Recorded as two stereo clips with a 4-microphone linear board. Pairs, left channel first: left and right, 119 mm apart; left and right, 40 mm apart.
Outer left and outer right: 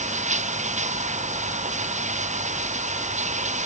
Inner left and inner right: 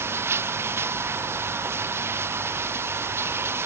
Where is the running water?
85° right.